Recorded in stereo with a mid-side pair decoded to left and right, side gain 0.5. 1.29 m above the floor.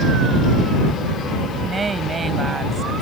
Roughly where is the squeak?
I don't hear a squeak.